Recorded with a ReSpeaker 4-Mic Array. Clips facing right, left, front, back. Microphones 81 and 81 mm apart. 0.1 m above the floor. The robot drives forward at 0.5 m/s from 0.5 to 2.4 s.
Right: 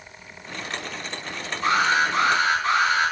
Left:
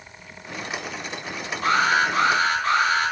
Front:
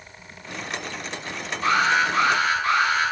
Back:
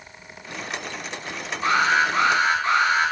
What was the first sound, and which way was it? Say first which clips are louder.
An alarm: left 1 dB, even; 110° left.